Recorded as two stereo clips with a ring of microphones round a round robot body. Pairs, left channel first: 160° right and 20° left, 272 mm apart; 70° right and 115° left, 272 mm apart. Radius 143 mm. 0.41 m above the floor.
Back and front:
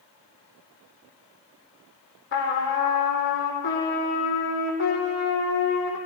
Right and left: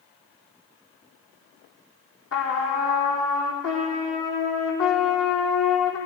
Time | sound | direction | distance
2.3 | a trumpet | 110° right | 4 m